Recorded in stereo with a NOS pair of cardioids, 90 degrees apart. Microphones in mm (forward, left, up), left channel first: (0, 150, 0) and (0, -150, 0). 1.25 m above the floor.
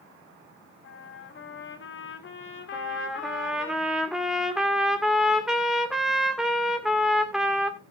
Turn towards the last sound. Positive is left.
turn(degrees=0)